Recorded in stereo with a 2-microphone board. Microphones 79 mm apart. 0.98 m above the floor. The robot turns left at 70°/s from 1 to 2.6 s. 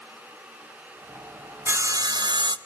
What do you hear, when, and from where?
1.7 s sawing: 30° right, 0.6 m; by 2.6 s 95° right, 0.6 m